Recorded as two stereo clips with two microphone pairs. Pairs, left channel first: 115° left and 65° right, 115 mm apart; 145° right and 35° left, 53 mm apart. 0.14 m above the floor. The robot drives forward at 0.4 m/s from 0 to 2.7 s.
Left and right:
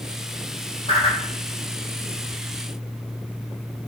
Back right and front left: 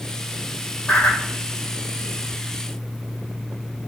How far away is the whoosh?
About 3 m.